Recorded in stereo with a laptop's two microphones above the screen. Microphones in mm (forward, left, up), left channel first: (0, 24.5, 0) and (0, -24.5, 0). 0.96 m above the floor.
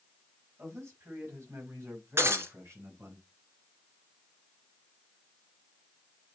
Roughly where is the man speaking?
Right.